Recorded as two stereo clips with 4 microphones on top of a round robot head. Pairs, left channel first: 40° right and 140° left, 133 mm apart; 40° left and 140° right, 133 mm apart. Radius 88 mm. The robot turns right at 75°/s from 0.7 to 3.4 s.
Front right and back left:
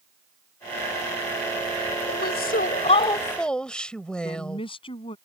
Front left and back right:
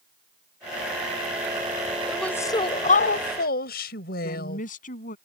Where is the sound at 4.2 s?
15° left.